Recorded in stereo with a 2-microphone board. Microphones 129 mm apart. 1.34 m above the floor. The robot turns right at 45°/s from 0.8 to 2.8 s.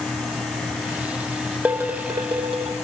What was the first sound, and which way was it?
Dishes clattering, 165° right.